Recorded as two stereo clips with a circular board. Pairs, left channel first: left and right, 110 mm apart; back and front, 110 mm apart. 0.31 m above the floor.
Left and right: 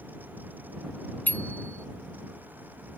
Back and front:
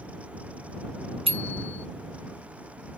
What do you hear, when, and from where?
1.3 s a bicycle bell: 15° left